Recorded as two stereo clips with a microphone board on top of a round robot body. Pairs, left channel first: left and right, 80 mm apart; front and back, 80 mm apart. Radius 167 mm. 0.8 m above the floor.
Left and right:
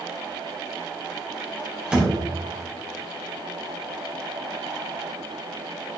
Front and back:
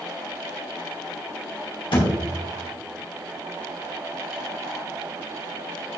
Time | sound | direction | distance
1.9 | a thud | 10° right | 2.5 m